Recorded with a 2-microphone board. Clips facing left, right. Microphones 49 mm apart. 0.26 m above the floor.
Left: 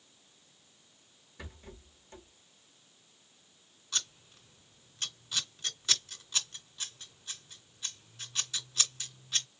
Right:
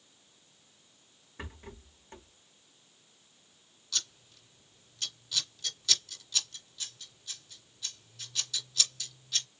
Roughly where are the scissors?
Left.